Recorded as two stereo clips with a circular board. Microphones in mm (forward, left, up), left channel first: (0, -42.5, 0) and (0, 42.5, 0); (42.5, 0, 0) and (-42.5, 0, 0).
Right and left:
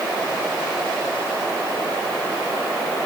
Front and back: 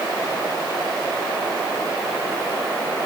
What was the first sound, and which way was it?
Only background noise.